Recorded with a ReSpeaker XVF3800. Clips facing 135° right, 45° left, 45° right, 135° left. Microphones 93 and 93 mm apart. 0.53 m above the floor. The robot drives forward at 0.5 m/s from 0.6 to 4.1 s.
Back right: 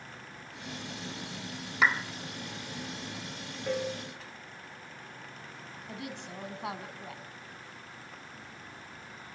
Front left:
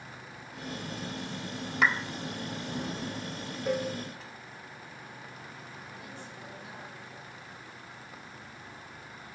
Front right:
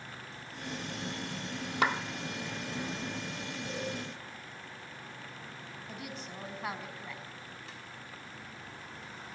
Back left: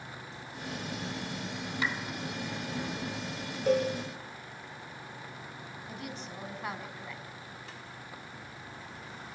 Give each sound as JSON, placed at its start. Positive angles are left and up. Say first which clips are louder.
{"t": 1.8, "sound": "a clap", "louder": "even, front right 5 dB", "azimuth_deg": -50, "distance_m": 1.0}
{"t": 3.7, "sound": "a cowbell", "louder": "front left 2 dB, back left 14 dB", "azimuth_deg": 120, "distance_m": 8.0}
{"t": 5.9, "sound": "a woman speaking", "louder": "back right 4 dB, back left 1 dB", "azimuth_deg": -135, "distance_m": 4.5}